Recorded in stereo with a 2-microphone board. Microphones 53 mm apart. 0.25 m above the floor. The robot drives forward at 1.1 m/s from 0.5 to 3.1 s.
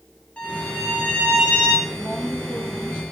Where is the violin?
25° left (ahead or behind), 8 m; by 1.8 s 20° left (ahead or behind), 9.5 m.